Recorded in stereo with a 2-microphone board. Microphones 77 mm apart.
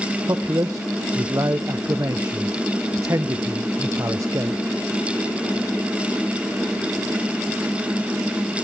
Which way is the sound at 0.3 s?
45° right (ahead or behind).